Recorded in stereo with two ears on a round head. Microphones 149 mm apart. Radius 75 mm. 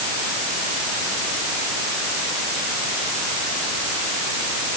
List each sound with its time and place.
Only background noise.